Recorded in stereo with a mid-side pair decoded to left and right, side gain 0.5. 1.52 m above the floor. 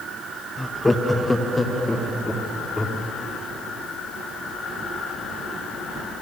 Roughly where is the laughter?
Ahead.